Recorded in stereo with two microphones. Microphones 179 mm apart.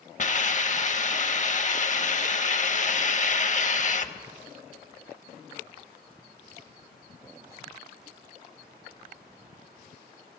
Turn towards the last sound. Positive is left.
turn(degrees=45)  # may be behind; listen again after turning